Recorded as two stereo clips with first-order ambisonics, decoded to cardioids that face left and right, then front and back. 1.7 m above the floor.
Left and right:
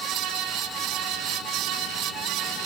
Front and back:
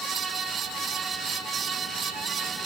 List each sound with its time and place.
Only background noise.